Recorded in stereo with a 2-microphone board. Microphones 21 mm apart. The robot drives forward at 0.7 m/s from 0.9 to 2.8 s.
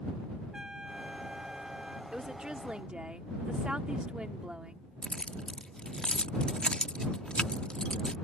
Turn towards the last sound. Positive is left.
turn(degrees=60)  # may be behind; listen again after turning